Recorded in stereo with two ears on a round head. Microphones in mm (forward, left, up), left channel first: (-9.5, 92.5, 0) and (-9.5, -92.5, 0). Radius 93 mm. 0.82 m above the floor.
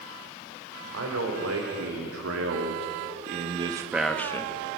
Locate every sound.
0.9 s a man speaking: 75° right (ahead or behind), 4 m; by 4.6 s 20° left (ahead or behind), 1.6 m